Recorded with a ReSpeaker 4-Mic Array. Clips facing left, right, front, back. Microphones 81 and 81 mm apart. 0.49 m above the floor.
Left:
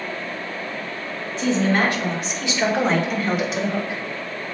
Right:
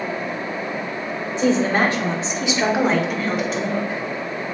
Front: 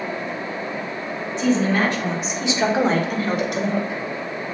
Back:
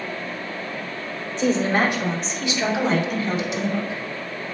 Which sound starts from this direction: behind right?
A woman speaking, at 1.4 s.